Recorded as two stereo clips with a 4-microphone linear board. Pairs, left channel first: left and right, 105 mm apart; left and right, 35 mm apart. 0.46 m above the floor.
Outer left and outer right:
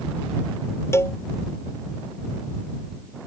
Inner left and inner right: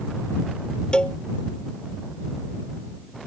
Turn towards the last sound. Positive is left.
turn(degrees=25)  # may be behind; listen again after turning